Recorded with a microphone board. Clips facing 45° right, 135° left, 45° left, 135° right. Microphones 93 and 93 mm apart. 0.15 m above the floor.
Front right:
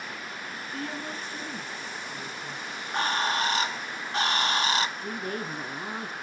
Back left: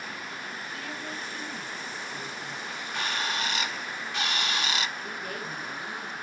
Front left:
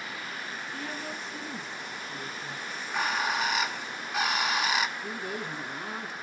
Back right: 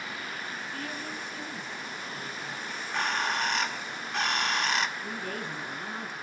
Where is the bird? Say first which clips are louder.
Front right 6 dB, front left 1 dB; 35° right, 0.6 m.